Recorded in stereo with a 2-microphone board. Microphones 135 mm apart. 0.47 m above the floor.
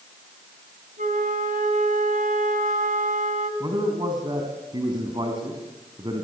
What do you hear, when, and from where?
1.0 s a flute: 75° right (ahead or behind), 4.5 m
3.6 s a man speaking: 35° right (ahead or behind), 4 m